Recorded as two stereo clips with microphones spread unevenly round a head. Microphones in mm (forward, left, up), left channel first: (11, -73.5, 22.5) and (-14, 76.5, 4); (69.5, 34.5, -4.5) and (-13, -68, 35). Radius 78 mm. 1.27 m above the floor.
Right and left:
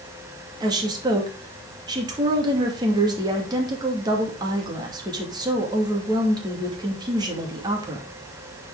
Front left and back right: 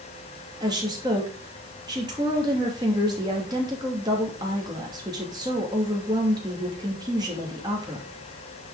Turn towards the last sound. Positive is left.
turn(degrees=165)